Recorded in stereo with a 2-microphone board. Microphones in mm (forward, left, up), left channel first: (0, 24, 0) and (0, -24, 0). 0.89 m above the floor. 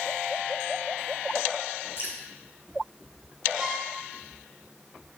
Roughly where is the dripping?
Left.